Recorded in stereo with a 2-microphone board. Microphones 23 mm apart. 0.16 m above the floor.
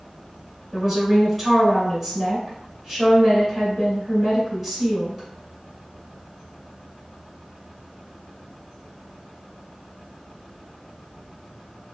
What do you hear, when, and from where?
0.7 s a woman speaking: centre (ahead or behind), 1.7 m